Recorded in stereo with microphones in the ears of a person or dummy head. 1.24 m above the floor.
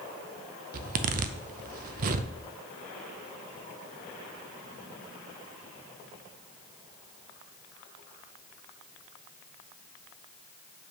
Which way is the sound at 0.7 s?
55° right (ahead or behind).